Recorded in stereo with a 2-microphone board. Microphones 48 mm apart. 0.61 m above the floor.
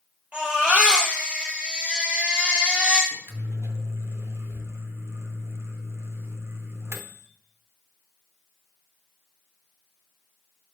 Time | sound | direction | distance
0.3 | a baby crying | 20° right (ahead or behind) | 7 m
3.1 | a microwave | 65° right (ahead or behind) | 1.1 m